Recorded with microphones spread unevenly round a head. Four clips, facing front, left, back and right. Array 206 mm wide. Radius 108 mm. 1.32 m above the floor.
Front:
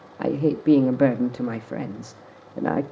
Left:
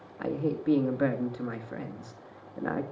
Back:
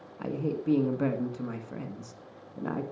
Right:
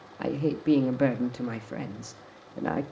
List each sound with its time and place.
0.2 s a man speaking: 15° right, 1.9 m